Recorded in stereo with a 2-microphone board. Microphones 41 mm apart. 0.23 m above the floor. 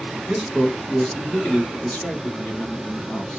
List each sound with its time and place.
0.3 s a man speaking: 10° right (ahead or behind), 1.3 m; by 3.4 s 50° left (ahead or behind), 1.7 m